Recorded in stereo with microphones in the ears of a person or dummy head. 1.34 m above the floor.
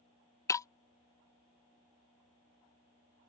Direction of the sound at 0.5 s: 15° left (ahead or behind).